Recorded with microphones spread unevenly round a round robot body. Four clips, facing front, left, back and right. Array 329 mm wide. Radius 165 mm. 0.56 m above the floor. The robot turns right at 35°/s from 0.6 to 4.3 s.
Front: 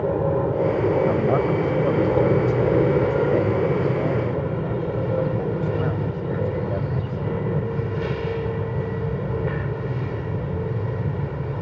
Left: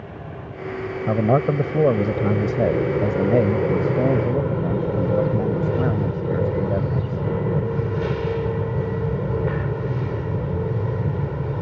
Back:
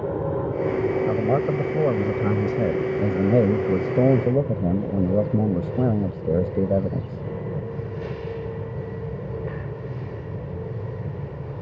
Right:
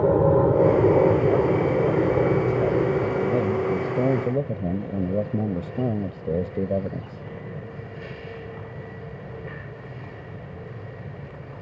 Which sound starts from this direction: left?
A man speaking, at 1.1 s.